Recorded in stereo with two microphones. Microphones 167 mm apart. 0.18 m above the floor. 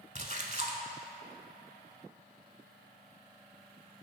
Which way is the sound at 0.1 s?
45° right (ahead or behind).